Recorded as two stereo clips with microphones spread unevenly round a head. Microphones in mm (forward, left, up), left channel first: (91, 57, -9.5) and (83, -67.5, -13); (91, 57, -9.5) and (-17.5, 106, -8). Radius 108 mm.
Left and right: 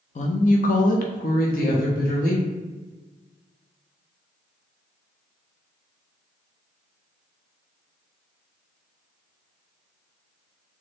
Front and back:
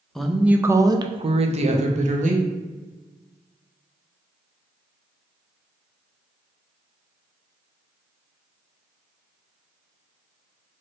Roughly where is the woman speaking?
Ahead left.